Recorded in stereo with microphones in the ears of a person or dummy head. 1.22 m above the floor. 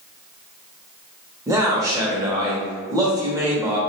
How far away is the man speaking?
About 0.6 m.